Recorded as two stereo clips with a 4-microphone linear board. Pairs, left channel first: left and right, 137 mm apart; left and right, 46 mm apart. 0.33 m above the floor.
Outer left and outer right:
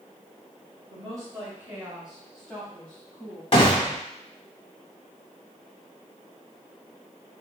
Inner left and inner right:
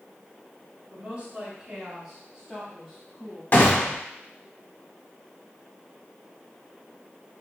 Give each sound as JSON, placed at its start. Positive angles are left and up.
{"t": 0.9, "sound": "a woman speaking", "side_deg": -30, "distance_m": 1.8}
{"t": 3.5, "sound": "a gunshot", "side_deg": 40, "distance_m": 1.0}